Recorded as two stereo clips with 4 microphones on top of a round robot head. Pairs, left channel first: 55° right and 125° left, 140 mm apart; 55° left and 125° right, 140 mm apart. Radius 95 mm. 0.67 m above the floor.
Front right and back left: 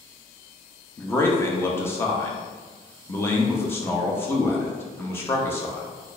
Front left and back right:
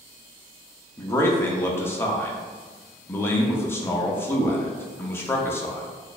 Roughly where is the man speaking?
Ahead.